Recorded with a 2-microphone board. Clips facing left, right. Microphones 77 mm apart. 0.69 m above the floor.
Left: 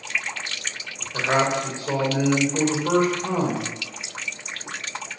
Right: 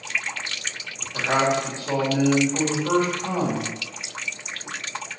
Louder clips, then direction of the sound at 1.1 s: Even; 20° left (ahead or behind).